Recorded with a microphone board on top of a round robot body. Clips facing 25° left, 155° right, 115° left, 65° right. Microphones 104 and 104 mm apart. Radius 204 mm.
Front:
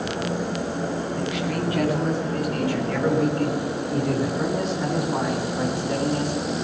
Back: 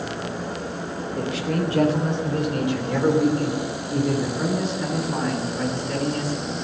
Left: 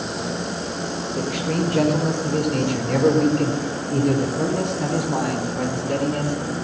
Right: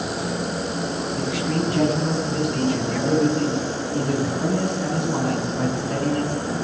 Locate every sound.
1.1 s a man speaking: 150° left, 4 m; by 6.5 s 90° left, 4 m